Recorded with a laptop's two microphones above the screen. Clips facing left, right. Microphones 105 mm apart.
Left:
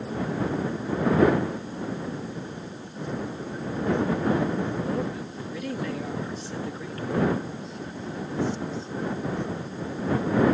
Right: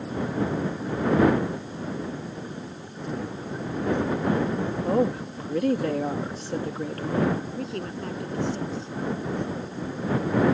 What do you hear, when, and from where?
4.8 s a woman speaking: 50° right (ahead or behind)
7.6 s a woman speaking: 80° right